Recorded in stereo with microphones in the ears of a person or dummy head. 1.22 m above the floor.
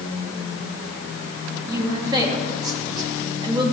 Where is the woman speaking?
20° right (ahead or behind), 2.5 m.